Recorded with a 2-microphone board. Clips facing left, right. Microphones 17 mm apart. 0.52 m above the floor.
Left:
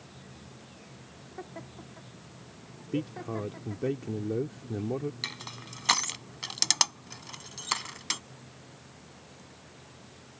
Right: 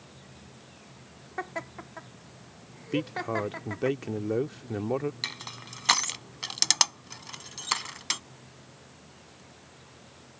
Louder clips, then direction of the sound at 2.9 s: Right 4 dB; 40° right (ahead or behind).